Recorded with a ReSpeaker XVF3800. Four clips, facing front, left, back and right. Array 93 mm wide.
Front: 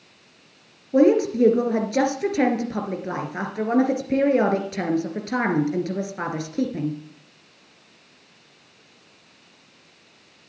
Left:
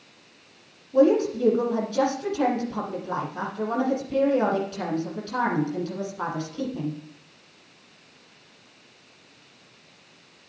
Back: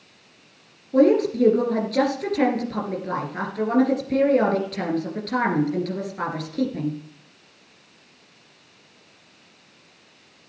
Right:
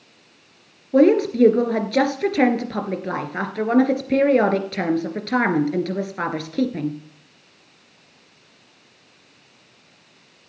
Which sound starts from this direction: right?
A woman speaking, at 0.9 s.